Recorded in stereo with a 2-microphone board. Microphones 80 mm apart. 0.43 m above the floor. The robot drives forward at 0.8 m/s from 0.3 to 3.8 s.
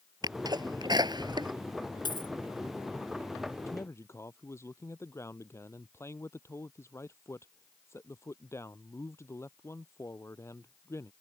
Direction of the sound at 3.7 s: 35° left (ahead or behind).